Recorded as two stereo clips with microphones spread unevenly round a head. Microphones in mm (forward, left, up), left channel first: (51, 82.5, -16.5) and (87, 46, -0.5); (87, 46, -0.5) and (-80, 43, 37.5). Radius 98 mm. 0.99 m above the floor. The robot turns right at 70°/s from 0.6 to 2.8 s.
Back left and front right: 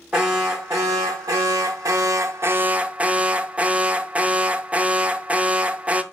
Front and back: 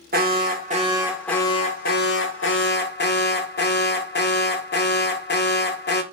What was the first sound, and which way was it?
An alarm, 130° right.